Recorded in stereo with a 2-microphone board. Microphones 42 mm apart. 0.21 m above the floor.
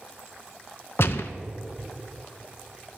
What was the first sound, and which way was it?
A gunshot, 65° left (ahead or behind).